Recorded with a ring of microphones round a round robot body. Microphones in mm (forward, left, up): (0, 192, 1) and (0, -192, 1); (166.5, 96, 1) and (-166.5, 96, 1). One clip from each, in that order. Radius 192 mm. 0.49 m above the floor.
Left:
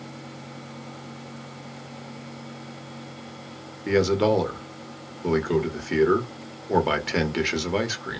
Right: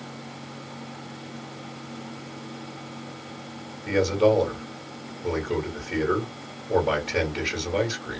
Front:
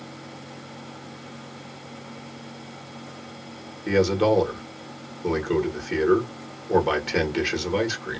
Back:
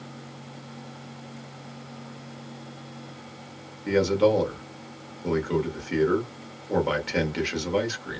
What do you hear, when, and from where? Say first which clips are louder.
3.9 s a man speaking: even, front 1 dB; 85° left, 1.2 m